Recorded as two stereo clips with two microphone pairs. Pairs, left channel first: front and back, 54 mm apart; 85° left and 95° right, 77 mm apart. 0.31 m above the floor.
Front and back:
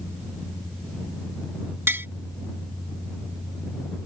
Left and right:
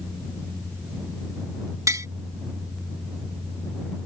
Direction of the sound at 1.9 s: 140° right.